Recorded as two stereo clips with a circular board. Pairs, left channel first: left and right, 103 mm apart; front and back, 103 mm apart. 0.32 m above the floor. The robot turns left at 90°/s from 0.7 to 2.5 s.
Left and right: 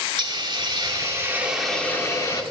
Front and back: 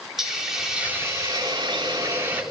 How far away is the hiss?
About 2 m.